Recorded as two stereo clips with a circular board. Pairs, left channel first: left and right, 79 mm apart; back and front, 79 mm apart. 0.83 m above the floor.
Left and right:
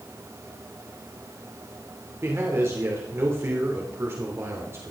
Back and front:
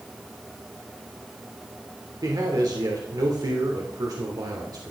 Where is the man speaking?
35° right, 3 m.